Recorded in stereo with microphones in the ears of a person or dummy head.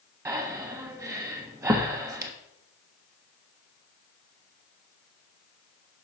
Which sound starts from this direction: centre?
Breathing, at 0.2 s.